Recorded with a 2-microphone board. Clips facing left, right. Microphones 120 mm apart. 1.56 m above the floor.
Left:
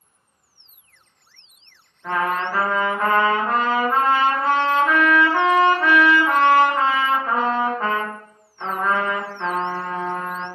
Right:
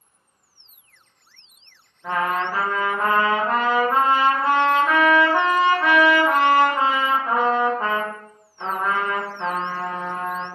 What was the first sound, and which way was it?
A trumpet, 15° right (ahead or behind).